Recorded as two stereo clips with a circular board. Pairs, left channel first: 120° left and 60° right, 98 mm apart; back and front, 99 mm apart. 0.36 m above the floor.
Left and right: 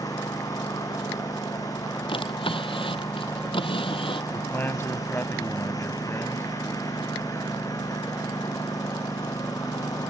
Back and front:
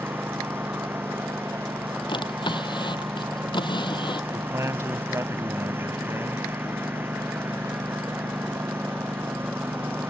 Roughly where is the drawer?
Behind left.